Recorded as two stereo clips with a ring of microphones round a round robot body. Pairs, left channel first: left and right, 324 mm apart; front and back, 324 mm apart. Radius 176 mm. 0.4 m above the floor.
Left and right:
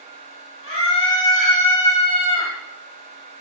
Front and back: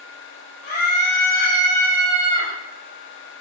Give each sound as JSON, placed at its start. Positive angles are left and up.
{"t": 0.6, "sound": "a scream", "azimuth_deg": 35, "distance_m": 9.0}